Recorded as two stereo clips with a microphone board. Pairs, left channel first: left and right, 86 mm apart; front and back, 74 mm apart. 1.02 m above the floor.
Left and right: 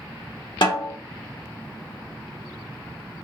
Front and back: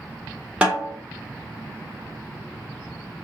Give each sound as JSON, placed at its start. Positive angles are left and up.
{"t": 0.6, "sound": "a snare drum", "azimuth_deg": 105, "distance_m": 1.5}